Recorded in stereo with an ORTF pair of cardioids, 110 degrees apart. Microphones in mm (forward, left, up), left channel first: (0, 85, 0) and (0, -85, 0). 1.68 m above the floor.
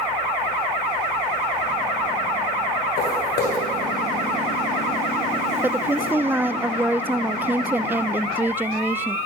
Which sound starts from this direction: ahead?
A woman speaking, at 5.6 s.